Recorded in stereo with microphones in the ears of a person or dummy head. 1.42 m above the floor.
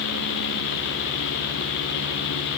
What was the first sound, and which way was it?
Only background noise.